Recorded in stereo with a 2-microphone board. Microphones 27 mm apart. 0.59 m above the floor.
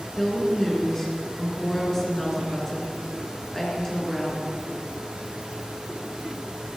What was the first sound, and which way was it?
A woman speaking, 15° left (ahead or behind).